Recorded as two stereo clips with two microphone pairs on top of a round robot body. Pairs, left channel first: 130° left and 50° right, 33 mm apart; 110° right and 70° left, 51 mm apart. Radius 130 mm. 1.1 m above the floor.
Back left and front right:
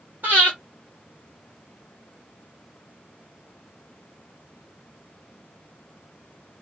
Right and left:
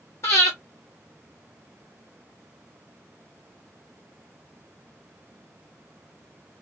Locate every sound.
0.2 s breathing: 80° right, 0.5 m